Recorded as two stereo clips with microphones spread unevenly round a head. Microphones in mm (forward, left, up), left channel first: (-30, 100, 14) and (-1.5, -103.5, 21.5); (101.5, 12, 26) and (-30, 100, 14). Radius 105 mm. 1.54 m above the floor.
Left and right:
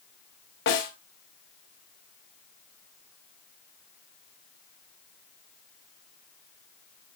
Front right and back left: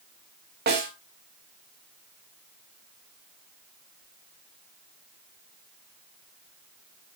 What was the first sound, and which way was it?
A snare drum, 130° left.